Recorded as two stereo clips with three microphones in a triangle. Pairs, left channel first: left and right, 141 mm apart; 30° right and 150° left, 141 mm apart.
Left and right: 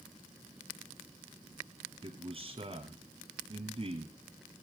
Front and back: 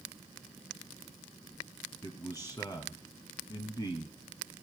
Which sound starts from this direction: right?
A man speaking, at 2.0 s.